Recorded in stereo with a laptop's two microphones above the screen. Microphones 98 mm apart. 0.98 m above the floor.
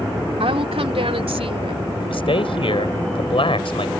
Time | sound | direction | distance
0.4 | a woman speaking | 75° right (ahead or behind) | ?
2.0 | a man speaking | 65° left (ahead or behind) | ?